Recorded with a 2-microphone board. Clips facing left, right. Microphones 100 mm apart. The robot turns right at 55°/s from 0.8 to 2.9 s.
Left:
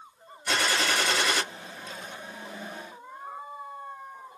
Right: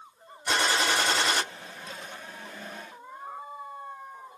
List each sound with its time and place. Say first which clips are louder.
0.5 s a gunshot: right 1 dB; 115° right, 1.3 m; by 1.4 s 80° right, 1.3 m